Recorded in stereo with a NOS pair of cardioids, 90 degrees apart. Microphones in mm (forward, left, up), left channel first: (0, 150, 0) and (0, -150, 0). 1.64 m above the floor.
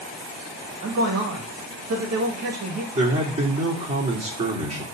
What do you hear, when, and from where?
0.8 s a man speaking: 55° right, 2 m
2.9 s a man speaking: 20° right, 3.5 m